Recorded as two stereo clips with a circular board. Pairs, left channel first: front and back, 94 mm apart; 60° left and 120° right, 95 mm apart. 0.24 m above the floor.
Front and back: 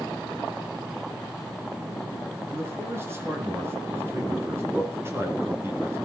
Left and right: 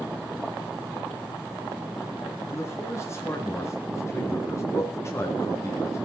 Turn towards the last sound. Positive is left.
turn(degrees=120)